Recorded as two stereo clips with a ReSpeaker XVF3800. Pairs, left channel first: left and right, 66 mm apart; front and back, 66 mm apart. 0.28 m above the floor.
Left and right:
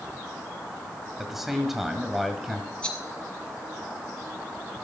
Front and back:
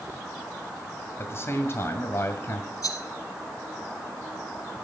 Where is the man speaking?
5° right, 1.8 m.